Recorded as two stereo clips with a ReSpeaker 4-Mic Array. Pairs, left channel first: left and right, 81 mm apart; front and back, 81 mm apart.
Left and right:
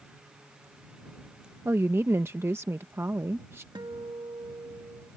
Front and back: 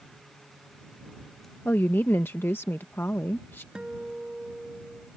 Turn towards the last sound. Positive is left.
turn(degrees=-100)